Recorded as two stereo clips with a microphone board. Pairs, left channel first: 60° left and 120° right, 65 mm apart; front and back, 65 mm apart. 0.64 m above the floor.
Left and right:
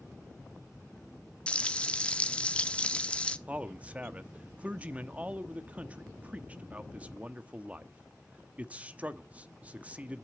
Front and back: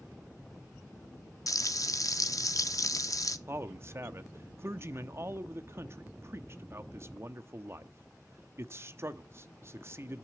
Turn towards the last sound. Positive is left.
turn(degrees=-175)